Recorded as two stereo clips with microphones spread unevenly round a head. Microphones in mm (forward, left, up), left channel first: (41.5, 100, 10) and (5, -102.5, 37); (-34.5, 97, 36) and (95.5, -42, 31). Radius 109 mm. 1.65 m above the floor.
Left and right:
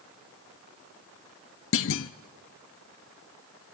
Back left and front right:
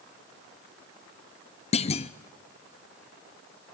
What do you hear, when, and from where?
1.7 s a clunk: 85° left, 0.5 m